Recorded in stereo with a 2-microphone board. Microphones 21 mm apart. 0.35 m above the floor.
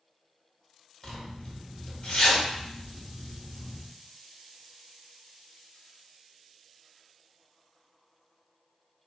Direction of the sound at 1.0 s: 45° left (ahead or behind).